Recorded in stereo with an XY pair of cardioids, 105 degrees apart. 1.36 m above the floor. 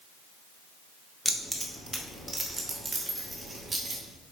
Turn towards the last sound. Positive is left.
turn(degrees=-25)